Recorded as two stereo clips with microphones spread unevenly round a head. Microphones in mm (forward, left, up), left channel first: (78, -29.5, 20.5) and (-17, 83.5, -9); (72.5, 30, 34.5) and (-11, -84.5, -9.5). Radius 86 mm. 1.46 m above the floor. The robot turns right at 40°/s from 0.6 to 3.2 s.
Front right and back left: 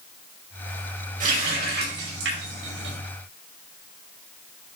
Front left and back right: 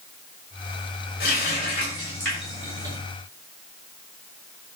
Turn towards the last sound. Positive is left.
turn(degrees=175)